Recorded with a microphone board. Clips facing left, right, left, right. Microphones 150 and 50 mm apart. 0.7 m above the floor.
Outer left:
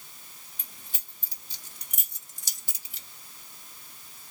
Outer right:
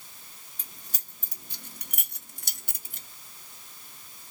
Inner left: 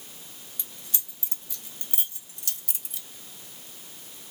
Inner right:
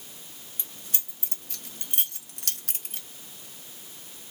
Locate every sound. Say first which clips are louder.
0.6 s keys jangling: outer right 3 dB, inner right 1 dB; 35° right (ahead or behind), 1.3 m; by 3.1 s 45° right (ahead or behind), 1.1 m